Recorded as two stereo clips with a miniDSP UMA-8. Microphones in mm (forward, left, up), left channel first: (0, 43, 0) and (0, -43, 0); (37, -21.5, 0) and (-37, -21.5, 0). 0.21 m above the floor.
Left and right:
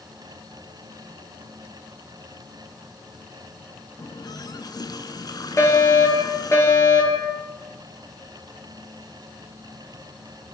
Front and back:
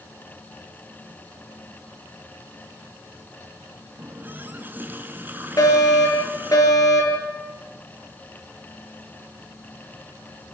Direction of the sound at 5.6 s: 35° left.